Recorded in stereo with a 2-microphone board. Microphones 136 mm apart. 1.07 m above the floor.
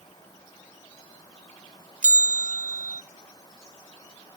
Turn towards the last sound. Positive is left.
turn(degrees=-75)  # may be behind; listen again after turning